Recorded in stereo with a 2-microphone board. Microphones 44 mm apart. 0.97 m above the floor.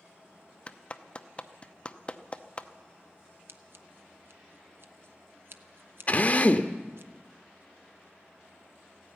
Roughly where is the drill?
Left.